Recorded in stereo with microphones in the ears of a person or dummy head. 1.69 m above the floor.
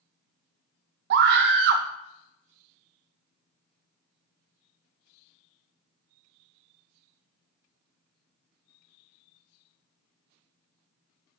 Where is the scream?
60° right (ahead or behind), 0.5 m.